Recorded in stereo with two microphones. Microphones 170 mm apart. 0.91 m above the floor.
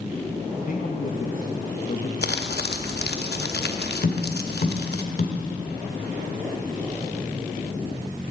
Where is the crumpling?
85° left, 0.8 m.